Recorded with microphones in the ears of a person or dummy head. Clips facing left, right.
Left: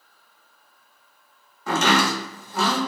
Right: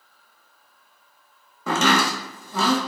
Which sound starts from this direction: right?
Chopping, at 1.7 s.